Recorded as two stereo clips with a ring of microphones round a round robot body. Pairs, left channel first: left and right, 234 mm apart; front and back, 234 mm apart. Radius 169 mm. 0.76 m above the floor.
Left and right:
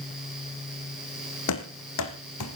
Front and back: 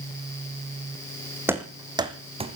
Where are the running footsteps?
100° left, 2.5 m; by 2.6 s 115° left, 2.5 m.